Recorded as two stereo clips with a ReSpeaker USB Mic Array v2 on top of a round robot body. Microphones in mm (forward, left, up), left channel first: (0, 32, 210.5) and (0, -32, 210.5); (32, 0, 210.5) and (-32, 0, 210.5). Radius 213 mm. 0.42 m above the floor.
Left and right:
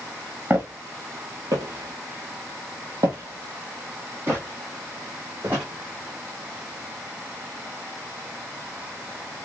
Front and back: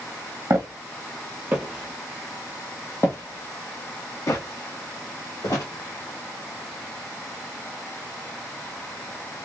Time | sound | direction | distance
0.5 | footsteps | 150° right | 1.0 m